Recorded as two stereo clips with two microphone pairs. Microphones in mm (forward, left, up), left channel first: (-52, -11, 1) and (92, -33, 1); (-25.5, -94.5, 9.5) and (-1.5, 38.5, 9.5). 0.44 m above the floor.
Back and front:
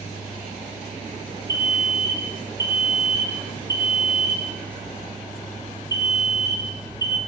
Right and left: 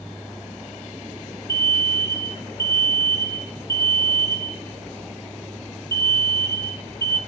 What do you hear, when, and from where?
1.5 s an alarm: 150° right, 1.1 m